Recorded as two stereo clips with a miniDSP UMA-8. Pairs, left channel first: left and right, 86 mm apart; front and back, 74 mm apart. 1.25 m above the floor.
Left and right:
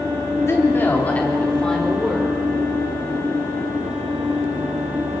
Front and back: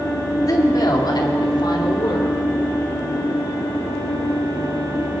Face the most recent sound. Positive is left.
turn(degrees=5)